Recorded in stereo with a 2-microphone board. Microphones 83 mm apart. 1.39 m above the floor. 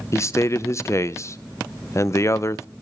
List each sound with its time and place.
0.1 s a man speaking: 35° left (ahead or behind), 0.6 m